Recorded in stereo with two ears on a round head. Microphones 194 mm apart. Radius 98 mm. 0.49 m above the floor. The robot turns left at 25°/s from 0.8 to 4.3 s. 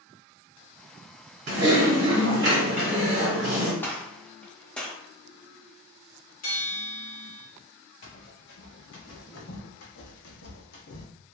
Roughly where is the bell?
Left.